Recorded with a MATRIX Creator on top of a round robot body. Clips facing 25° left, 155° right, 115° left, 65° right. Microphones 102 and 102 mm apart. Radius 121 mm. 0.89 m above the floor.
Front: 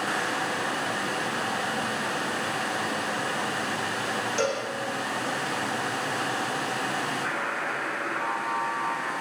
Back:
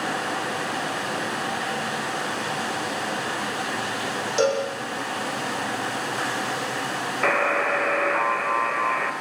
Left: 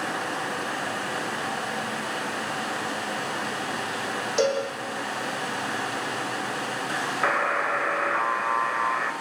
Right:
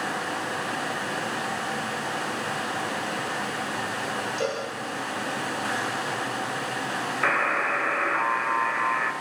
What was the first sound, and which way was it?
A cowbell, 130° left.